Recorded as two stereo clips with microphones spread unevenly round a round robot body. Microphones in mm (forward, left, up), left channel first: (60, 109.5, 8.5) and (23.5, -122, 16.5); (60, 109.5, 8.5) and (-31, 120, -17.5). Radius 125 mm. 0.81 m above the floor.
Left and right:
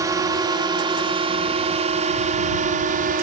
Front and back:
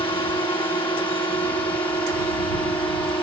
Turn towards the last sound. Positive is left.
turn(degrees=-60)